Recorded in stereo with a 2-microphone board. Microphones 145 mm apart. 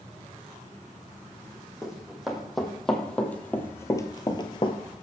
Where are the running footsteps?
5° right (ahead or behind), 2 m; by 4.8 s 35° left (ahead or behind), 0.9 m.